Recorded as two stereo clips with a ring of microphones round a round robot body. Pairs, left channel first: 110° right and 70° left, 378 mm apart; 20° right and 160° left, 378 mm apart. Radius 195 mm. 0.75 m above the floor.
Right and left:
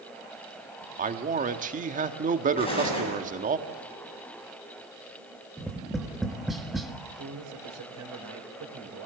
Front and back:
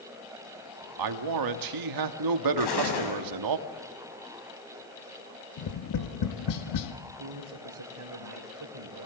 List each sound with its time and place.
1.0 s a man speaking: 135° left, 1.3 m
2.6 s an explosion: 35° right, 7.5 m
5.6 s tapping: 20° right, 1.5 m
7.0 s a man speaking: 115° left, 3.5 m